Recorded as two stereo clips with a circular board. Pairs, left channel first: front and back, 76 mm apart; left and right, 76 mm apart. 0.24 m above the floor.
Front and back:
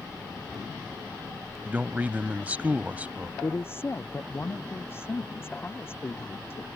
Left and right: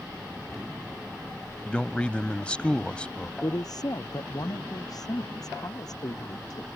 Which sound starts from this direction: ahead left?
A woman speaking, at 3.4 s.